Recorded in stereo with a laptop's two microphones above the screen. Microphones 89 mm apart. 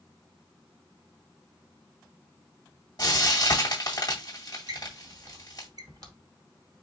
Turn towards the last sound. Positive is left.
turn(degrees=-50)  # may be behind; listen again after turning